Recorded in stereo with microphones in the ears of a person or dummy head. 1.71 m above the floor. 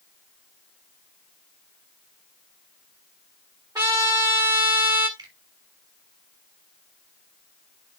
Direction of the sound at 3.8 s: 15° right (ahead or behind).